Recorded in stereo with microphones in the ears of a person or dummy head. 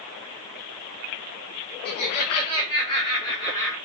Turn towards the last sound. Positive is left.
turn(degrees=15)  # may be behind; listen again after turning